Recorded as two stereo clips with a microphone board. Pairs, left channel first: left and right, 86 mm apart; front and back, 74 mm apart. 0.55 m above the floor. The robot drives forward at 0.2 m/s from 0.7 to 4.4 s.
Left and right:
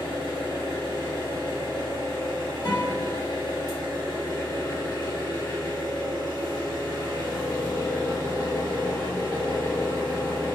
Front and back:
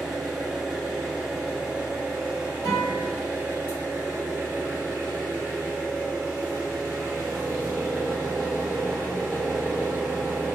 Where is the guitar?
100° left, 1.9 m.